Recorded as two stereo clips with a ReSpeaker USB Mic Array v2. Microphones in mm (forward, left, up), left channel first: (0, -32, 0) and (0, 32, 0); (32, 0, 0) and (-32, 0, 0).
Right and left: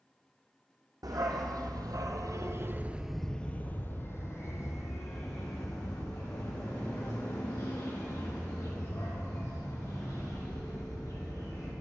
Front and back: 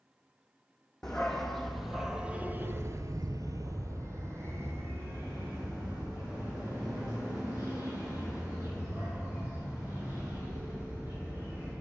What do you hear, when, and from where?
1.0 s a dog barking: 85° left, 1.5 m; by 11.7 s 120° right, 6.5 m